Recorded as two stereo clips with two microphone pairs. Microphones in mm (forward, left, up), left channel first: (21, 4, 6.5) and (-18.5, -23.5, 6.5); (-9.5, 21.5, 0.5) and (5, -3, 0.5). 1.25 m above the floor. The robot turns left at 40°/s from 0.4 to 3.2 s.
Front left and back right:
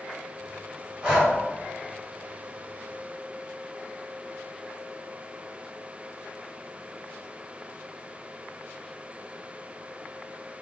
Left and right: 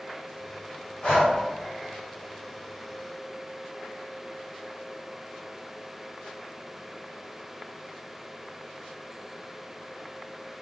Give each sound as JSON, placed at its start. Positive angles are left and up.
{"t": 1.0, "sound": "breathing", "azimuth_deg": 145, "distance_m": 1.4}